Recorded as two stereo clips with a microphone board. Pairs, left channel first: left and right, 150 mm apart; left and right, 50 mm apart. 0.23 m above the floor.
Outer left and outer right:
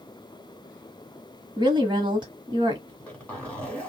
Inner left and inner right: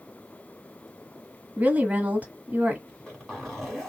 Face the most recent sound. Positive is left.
turn(degrees=10)  # may be behind; listen again after turning